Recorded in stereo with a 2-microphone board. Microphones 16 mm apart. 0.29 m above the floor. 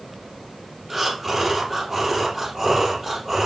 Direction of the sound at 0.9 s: 10° right (ahead or behind).